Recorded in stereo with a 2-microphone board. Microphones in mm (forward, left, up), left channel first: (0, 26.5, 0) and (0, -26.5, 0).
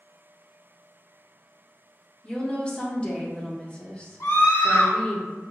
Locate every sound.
2.2 s a woman speaking: 20° left (ahead or behind), 0.7 m
4.2 s a scream: 60° left (ahead or behind), 1.8 m